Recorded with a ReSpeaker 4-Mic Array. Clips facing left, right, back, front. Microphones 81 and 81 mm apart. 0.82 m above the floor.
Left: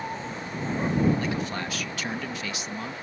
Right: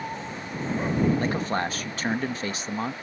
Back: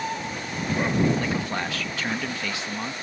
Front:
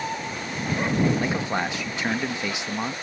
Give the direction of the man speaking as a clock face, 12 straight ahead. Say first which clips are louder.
Right 4 dB, front 2 dB; 2 o'clock.